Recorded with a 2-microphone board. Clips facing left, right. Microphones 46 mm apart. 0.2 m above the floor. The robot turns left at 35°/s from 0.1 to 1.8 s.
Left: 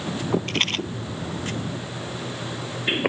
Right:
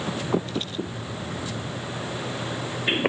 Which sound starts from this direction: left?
A rattle, at 0.5 s.